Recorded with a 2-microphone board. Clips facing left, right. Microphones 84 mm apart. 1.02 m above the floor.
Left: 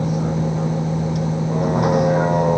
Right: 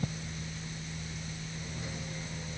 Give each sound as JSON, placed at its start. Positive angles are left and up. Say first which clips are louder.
{"t": 0.0, "sound": "a vehicle", "louder": "left 19 dB", "side_deg": 75}